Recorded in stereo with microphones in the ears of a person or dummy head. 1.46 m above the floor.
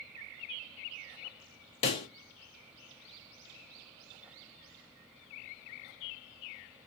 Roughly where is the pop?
Left.